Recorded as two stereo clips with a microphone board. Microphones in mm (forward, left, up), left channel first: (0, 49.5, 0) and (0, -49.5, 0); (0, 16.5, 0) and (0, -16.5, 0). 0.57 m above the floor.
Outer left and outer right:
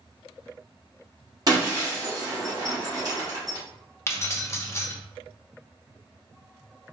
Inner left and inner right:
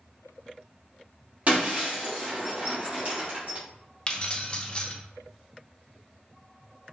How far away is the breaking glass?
About 1.9 m.